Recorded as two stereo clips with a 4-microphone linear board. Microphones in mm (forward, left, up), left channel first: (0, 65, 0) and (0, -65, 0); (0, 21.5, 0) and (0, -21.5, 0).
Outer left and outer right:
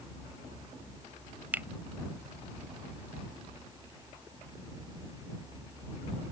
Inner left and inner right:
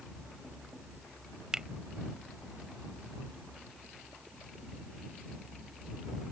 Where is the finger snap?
15° right (ahead or behind).